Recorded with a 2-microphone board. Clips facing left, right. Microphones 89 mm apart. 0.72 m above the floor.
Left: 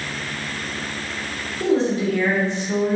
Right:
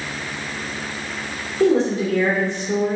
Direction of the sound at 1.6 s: 45° right (ahead or behind).